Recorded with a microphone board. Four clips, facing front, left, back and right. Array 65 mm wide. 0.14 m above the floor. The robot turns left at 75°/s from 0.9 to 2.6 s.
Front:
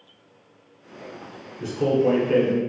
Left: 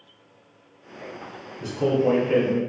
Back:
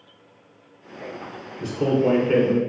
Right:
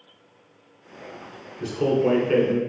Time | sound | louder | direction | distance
1.6 | a man speaking | even, even | 75° right | 1.1 m